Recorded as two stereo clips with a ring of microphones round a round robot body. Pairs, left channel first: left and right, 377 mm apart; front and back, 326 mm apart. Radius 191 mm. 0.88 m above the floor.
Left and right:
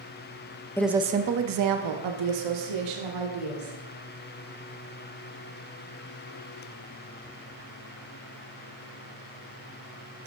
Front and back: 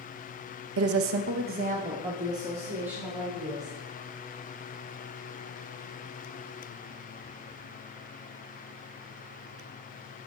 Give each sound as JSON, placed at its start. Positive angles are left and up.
{"t": 0.8, "sound": "a woman speaking", "azimuth_deg": 170, "distance_m": 0.6}